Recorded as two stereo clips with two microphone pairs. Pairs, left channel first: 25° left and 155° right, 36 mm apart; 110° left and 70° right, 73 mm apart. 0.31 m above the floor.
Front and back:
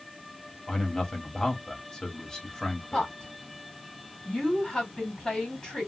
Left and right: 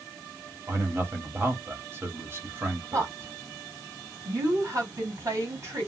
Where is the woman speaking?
40° right, 2 m.